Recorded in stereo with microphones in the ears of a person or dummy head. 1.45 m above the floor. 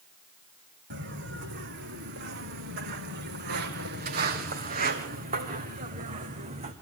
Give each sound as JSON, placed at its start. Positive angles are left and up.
{"t": 0.9, "sound": "footsteps", "side_deg": -60, "distance_m": 3.5}